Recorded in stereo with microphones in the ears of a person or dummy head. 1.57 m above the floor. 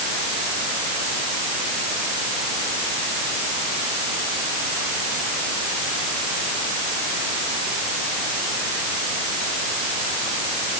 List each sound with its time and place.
Only background noise.